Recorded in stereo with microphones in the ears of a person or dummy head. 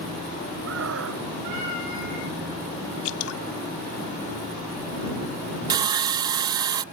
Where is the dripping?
85° left.